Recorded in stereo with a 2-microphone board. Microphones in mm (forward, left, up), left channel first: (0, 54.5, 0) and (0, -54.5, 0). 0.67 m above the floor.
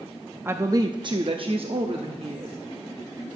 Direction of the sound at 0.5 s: 20° right (ahead or behind).